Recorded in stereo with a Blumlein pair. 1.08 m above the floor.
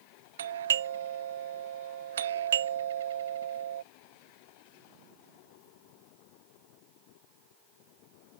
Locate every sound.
0.4 s a doorbell: 60° right